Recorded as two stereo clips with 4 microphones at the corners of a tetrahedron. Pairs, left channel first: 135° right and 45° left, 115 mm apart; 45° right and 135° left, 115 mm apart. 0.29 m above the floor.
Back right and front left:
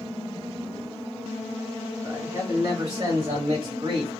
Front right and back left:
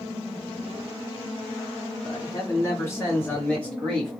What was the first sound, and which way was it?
A man speaking, 25° right.